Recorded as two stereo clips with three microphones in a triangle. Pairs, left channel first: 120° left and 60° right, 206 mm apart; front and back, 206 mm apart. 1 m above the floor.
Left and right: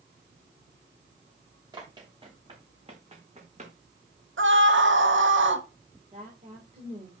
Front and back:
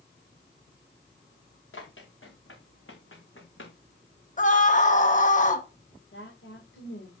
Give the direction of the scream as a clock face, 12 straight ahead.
2 o'clock.